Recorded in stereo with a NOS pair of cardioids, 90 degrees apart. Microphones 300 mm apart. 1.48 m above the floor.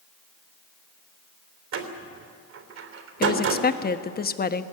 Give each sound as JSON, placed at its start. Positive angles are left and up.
{"t": 1.7, "sound": "a door slam", "azimuth_deg": -65, "distance_m": 3.5}
{"t": 3.2, "sound": "a woman speaking", "azimuth_deg": 30, "distance_m": 1.3}